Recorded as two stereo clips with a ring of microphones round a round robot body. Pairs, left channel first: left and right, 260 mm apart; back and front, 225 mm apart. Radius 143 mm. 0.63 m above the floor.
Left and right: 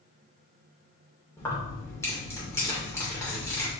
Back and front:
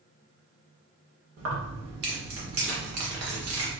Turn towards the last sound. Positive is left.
turn(degrees=10)